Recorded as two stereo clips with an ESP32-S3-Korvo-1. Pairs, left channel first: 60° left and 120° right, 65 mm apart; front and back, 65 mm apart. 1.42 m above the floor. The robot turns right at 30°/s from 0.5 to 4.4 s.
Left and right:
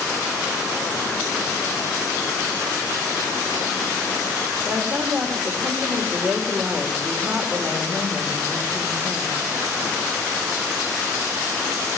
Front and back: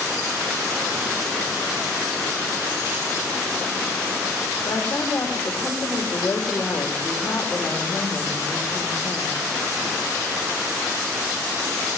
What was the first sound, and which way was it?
A woman speaking, 70° right.